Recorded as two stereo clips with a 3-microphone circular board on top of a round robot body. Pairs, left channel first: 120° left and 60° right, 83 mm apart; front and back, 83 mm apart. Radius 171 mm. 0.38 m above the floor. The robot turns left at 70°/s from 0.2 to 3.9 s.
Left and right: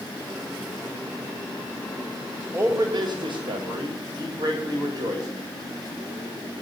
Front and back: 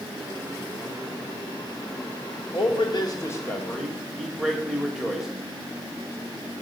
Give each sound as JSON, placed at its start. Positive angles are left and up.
{"t": 2.5, "sound": "a man speaking", "azimuth_deg": 0, "distance_m": 2.0}